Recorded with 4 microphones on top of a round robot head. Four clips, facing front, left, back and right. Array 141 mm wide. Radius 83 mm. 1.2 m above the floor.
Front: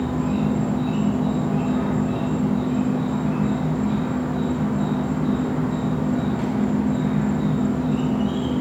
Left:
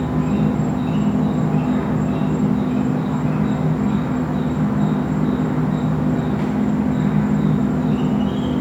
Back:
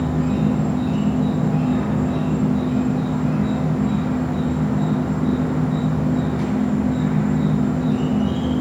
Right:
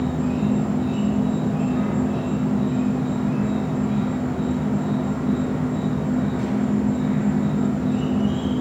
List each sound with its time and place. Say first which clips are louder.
0.0 s an insect: left 3 dB, back 2 dB; 110° left, 2.0 m